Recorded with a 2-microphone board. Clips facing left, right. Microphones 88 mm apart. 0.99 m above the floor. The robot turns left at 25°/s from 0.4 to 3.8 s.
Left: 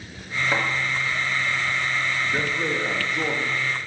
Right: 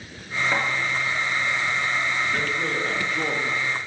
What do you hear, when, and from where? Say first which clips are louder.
0.5 s a thud: left 1 dB; 10° left (ahead or behind), 2.5 m
2.3 s a man speaking: left 1 dB; 25° left, 1.3 m; by 3.9 s 10° right, 1.3 m